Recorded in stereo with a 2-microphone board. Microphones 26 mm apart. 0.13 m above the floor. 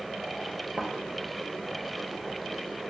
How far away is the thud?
About 1.3 m.